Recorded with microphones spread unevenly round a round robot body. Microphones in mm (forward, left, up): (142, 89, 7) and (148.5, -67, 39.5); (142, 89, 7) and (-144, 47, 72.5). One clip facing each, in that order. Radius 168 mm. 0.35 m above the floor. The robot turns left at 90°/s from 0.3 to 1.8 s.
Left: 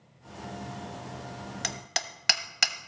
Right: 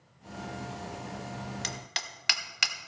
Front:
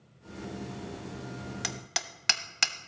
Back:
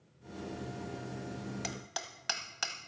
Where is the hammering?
70° left, 1.0 m; by 2.8 s 55° left, 1.0 m.